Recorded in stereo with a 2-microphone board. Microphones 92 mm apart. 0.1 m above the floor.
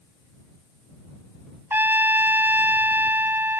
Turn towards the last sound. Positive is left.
turn(degrees=-25)  # may be behind; listen again after turning